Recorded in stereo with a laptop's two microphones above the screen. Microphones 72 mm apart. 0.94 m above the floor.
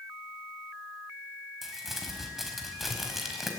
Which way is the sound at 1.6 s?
Centre (ahead or behind).